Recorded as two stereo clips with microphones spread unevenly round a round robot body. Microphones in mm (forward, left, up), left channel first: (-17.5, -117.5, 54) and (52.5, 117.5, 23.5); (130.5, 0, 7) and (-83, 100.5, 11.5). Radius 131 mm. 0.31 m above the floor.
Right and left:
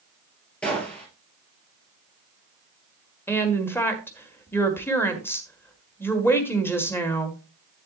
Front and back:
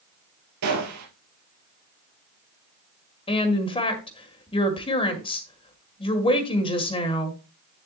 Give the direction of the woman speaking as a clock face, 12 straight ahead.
1 o'clock.